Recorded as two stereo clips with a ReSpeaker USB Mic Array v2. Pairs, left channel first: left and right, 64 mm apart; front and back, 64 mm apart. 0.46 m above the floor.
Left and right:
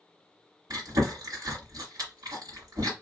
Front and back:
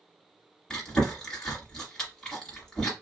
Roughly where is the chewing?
Right.